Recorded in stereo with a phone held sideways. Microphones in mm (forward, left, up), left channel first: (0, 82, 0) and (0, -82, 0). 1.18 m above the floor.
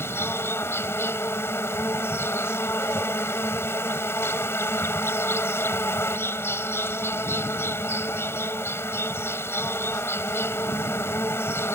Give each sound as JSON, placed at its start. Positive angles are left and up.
{"t": 0.0, "sound": "an insect", "side_deg": 15}